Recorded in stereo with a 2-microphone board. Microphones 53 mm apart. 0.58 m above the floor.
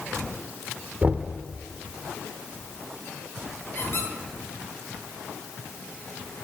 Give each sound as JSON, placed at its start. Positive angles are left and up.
{"t": 1.0, "sound": "knocking", "side_deg": -25, "distance_m": 1.0}
{"t": 3.8, "sound": "a squeak", "side_deg": 50, "distance_m": 8.5}